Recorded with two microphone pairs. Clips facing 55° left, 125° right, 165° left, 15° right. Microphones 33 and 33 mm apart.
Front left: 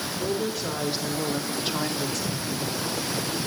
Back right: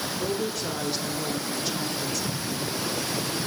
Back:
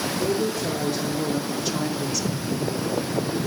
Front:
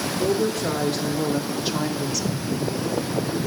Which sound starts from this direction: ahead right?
A woman speaking, at 0.2 s.